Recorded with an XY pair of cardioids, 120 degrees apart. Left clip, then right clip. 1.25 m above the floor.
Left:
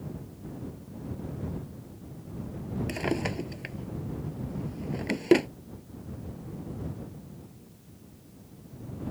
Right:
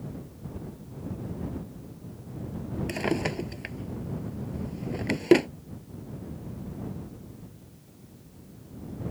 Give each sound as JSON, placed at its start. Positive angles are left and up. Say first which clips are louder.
{"t": 2.9, "sound": "a drawer", "louder": "right 2 dB", "azimuth_deg": -10}